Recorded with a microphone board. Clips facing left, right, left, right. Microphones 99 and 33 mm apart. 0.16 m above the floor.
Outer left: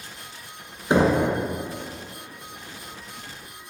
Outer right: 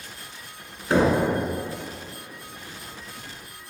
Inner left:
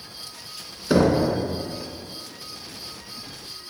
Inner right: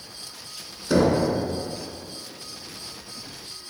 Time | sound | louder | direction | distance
0.9 | knocking | outer left 1 dB, inner left 1 dB | 20° left (ahead or behind) | 0.9 m